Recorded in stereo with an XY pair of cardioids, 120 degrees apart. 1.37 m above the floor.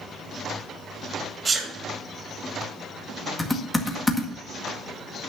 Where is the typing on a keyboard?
15° left, 1.9 m.